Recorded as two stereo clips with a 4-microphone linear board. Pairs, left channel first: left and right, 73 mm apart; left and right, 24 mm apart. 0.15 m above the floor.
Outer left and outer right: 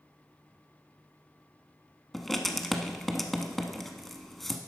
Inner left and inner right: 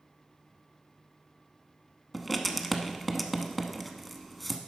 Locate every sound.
2.1 s writing: 5° left (ahead or behind), 0.7 m